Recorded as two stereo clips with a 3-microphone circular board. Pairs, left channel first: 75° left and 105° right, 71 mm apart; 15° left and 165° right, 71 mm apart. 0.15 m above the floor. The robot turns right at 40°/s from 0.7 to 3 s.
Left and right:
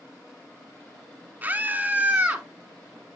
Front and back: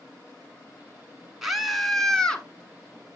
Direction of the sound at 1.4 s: 85° right.